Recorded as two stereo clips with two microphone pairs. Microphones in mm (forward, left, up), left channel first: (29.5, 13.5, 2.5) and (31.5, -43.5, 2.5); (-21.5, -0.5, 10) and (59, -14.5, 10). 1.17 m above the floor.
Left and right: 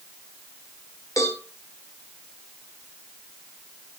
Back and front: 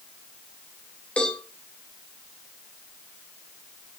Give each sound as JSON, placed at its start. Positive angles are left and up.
{"t": 1.2, "sound": "a cowbell", "azimuth_deg": 95, "distance_m": 2.5}